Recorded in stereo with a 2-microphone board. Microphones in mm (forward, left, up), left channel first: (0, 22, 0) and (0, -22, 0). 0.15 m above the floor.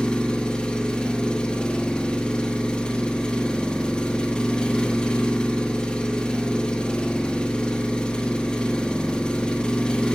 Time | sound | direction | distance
0.0 | an engine running | 20° left (ahead or behind) | 1.1 m